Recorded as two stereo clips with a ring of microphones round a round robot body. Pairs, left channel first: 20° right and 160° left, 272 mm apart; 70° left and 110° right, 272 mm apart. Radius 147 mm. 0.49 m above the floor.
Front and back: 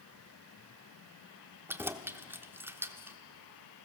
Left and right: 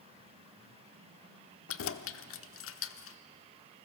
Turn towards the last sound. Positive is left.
turn(degrees=75)